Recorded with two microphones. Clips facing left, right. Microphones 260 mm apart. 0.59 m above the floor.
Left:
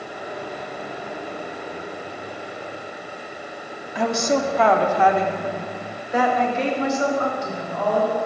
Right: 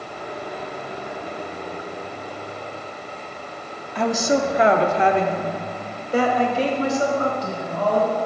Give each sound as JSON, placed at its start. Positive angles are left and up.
{"t": 4.0, "sound": "a woman speaking", "side_deg": 5, "distance_m": 0.7}